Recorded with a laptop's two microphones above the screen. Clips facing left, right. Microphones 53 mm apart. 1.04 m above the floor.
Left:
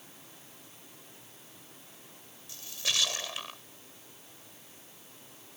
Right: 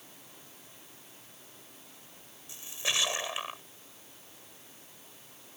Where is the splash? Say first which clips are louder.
Right 1 dB; 20° right (ahead or behind).